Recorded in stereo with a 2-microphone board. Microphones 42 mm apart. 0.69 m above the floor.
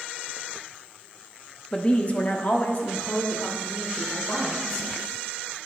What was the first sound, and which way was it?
A woman speaking, 20° left (ahead or behind).